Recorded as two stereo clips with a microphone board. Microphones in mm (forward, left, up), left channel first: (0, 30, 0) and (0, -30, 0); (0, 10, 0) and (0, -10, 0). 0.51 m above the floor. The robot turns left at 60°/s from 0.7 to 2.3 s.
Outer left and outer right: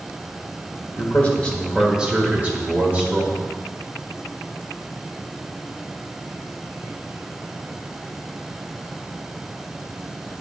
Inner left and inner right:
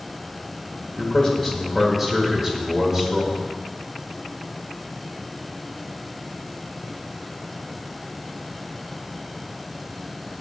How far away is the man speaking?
About 1.6 m.